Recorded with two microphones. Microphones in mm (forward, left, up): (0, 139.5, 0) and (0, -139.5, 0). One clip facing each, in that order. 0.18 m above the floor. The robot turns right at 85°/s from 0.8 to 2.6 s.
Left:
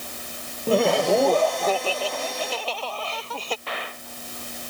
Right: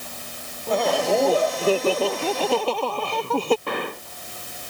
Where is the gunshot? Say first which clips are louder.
Right 8 dB; 60° right (ahead or behind).